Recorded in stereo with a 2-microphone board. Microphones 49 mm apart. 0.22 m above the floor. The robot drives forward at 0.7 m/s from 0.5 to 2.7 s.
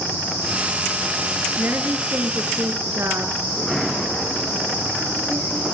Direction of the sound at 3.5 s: 10° left (ahead or behind).